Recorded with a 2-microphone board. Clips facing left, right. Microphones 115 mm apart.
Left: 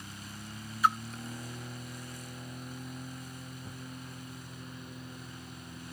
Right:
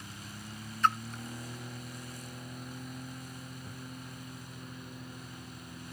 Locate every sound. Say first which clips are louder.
0.8 s a splash: left 1 dB; 10° left (ahead or behind)
3.6 s a thud: even; 5° left (ahead or behind)